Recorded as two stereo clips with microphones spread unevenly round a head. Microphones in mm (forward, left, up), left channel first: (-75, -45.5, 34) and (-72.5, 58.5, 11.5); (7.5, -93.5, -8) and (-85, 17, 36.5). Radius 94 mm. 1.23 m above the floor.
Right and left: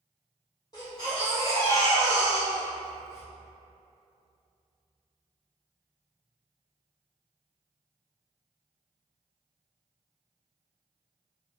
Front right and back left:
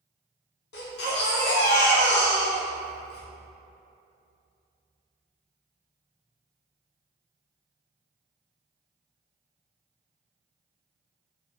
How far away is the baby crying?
About 0.5 m.